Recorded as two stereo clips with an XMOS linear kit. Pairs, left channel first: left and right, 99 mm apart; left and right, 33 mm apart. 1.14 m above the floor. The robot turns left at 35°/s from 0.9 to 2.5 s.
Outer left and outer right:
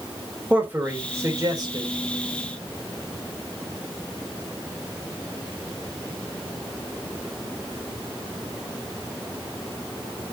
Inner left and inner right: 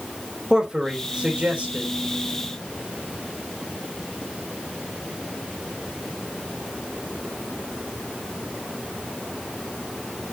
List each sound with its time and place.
0.5 s a man speaking: 20° right, 3.5 m; by 1.9 s 55° right, 3.5 m